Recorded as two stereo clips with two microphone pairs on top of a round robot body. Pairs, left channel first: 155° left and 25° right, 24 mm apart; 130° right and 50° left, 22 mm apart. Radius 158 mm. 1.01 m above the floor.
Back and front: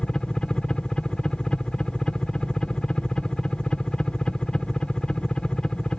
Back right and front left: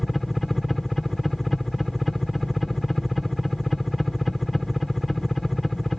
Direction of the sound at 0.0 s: 155° left.